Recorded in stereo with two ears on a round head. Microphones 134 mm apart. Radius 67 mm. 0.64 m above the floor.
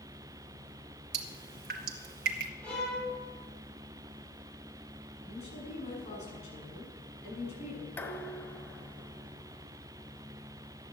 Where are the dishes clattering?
15° left (ahead or behind), 1.4 m.